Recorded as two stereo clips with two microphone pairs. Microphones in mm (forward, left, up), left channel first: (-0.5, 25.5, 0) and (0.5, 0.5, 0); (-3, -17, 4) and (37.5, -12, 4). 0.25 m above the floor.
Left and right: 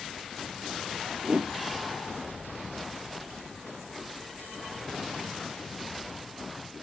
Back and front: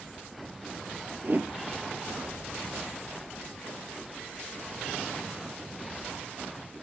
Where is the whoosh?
35° right, 1.7 m.